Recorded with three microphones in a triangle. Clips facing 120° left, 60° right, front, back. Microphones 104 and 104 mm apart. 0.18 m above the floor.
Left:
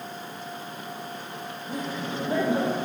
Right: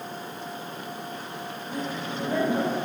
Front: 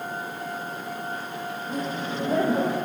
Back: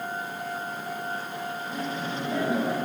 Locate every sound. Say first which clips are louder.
1.7 s laughter: left 1 dB, front 4 dB; 50° left, 8 m